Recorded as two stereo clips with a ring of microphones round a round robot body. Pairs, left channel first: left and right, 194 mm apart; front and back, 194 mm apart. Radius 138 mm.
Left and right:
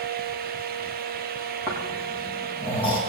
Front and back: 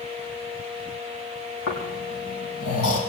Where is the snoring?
5° right, 5 m.